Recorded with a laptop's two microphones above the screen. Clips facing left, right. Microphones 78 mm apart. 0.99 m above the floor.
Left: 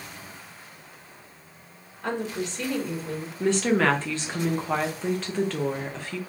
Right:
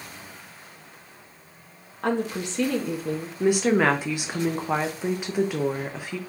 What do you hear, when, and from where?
2.0 s a woman speaking: 70° right (ahead or behind), 1.4 m
3.4 s a woman speaking: 15° right (ahead or behind), 0.5 m